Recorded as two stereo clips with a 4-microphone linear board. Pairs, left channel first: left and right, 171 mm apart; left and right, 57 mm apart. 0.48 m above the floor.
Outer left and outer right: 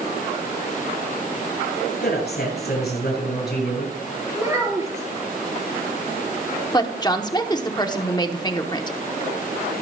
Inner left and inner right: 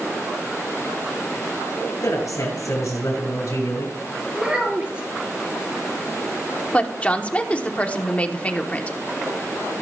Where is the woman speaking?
25° left (ahead or behind), 0.9 m.